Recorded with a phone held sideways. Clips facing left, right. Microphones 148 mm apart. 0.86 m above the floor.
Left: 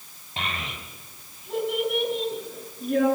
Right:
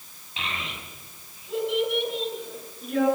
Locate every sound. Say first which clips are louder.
0.4 s a child speaking: left 2 dB; 45° left (ahead or behind), 4 m